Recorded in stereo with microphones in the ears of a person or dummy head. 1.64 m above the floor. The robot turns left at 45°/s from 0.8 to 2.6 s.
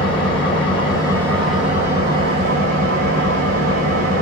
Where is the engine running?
30° left, 1.7 m; by 4.2 s 55° right, 1.7 m.